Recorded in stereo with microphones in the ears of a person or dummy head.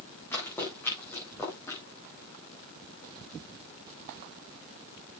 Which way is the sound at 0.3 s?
5° left (ahead or behind).